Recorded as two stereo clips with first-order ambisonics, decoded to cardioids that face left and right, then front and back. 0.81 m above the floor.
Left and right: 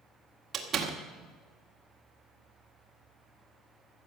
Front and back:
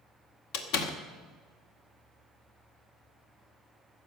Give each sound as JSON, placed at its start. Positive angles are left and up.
{"t": 0.5, "sound": "a door slam", "azimuth_deg": -20, "distance_m": 1.6}